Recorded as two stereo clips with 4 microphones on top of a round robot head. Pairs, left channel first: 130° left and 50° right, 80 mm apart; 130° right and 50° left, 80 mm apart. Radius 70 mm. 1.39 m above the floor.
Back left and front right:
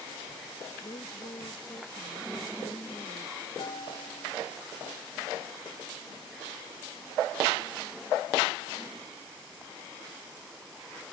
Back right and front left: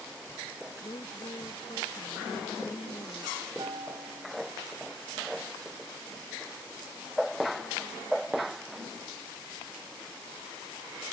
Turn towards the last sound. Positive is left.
turn(degrees=95)